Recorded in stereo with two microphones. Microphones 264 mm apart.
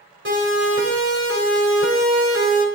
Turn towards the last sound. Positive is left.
turn(degrees=-65)  # may be behind; listen again after turning